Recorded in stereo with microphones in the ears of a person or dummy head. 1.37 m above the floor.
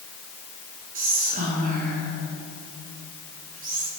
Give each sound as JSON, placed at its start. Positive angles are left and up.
{"t": 0.9, "sound": "whispering", "side_deg": -40, "distance_m": 0.9}